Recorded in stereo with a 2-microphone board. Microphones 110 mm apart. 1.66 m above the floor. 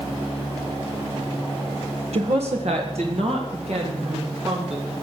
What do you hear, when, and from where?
2.1 s a woman speaking: 70° right (ahead or behind), 1.6 m; by 4.9 s 80° right, 5 m